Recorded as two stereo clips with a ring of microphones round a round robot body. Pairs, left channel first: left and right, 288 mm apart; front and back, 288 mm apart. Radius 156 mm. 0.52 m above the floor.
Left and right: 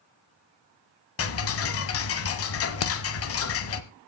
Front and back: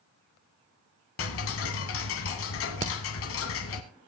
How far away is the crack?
About 1.3 m.